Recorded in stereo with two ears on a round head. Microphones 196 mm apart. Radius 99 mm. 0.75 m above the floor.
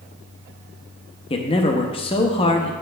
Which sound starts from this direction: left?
A man speaking, at 1.3 s.